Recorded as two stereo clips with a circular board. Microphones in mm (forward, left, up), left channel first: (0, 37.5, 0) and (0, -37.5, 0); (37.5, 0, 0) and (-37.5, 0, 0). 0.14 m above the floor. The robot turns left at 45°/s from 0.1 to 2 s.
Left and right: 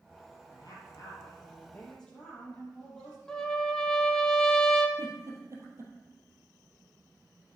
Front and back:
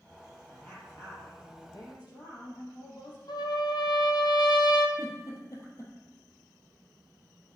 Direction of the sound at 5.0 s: 45° right.